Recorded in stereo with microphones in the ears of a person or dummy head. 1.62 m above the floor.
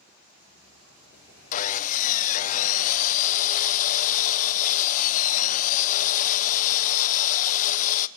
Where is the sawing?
45° left (ahead or behind), 0.7 m.